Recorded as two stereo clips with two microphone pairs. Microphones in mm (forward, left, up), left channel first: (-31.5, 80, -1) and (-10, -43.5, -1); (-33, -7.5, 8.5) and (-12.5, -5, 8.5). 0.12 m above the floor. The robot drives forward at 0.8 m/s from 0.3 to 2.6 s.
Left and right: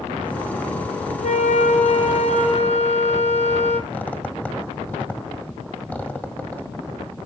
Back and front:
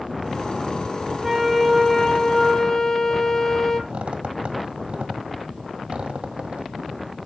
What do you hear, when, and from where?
1.2 s a flute: 90° left, 1.4 m; by 3.8 s 130° left, 1.8 m
3.9 s a squeak: 25° left, 1.4 m